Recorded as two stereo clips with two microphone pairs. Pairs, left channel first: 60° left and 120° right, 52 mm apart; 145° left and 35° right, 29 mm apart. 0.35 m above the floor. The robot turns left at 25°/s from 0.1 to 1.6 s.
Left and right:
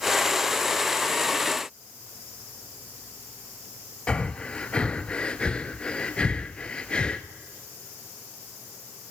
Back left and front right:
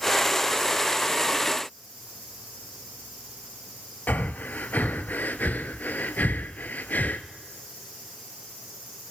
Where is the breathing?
130° left, 0.9 m.